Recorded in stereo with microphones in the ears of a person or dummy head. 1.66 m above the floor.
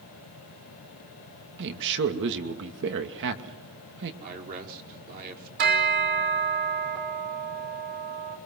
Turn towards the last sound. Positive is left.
turn(degrees=-40)  # may be behind; listen again after turning